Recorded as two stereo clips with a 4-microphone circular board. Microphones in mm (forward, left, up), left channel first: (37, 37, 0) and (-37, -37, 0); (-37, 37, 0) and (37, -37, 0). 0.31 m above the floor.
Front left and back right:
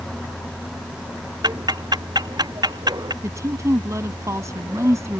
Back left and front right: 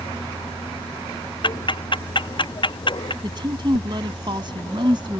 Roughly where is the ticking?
Behind.